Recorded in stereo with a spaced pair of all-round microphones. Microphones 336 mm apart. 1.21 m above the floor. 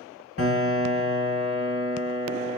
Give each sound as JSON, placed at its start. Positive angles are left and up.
{"t": 0.4, "sound": "a piano", "side_deg": 40, "distance_m": 1.3}